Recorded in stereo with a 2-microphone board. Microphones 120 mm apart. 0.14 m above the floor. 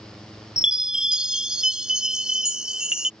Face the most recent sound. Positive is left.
turn(degrees=-5)  # may be behind; listen again after turning